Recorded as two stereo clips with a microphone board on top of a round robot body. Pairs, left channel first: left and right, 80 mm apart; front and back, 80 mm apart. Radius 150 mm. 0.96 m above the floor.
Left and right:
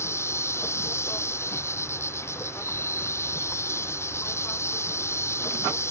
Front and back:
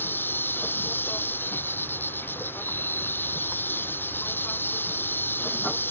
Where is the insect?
55° left.